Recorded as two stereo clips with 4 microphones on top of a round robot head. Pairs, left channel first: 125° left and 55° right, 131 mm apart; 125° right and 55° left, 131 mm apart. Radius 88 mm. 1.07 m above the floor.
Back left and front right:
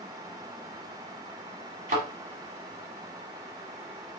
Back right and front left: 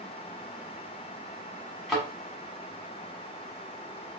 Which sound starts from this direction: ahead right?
A thud, at 1.9 s.